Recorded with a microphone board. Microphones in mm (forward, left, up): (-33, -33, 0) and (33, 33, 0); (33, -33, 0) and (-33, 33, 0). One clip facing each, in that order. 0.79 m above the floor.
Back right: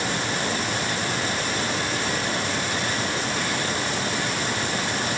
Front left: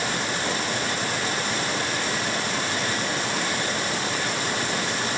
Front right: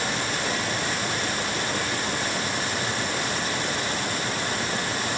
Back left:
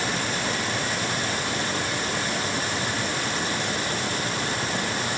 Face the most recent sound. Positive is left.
No sound to turn to.